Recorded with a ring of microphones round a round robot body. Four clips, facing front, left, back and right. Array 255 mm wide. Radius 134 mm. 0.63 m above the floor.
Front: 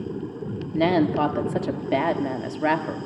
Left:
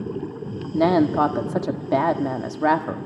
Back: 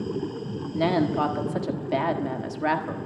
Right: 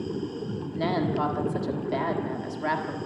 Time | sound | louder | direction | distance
0.7 | a woman speaking | left 9 dB, front 3 dB | 65° left | 1.4 m